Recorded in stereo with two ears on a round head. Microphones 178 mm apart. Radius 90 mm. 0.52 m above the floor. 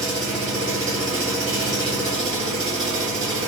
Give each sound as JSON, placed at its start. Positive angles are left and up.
{"t": 0.0, "sound": "an engine running", "side_deg": -25, "distance_m": 1.5}